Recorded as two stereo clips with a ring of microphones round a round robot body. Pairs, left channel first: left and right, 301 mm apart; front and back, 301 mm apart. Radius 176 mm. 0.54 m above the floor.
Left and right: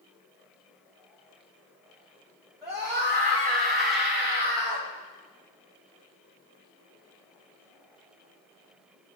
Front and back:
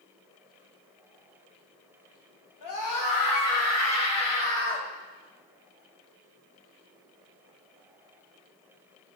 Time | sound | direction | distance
2.6 | a scream | 10° right | 4.5 m